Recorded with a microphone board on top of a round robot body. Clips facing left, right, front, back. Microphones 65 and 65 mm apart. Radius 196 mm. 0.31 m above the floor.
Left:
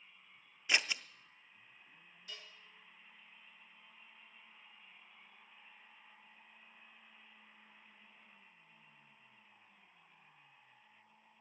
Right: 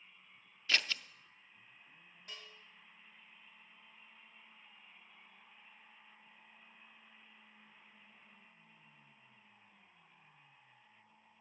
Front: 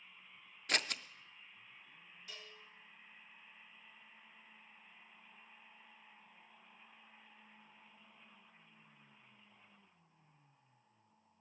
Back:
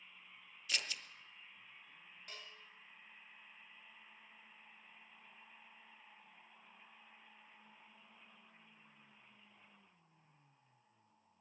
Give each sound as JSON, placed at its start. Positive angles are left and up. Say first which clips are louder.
{"t": 0.7, "sound": "scissors", "louder": "left 1 dB, front 5 dB", "azimuth_deg": 20, "distance_m": 0.6}
{"t": 2.3, "sound": "a bell", "louder": "right 1 dB, even", "azimuth_deg": -140, "distance_m": 5.5}